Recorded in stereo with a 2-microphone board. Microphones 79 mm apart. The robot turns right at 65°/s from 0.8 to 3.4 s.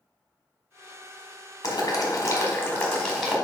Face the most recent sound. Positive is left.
turn(degrees=-170)